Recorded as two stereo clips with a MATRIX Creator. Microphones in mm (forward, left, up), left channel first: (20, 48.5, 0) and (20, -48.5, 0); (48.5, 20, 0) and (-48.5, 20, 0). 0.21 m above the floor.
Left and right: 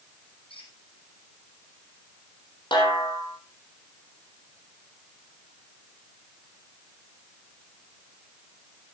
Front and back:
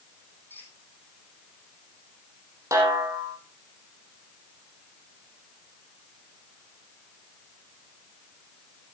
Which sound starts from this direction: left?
A squeak, at 0.5 s.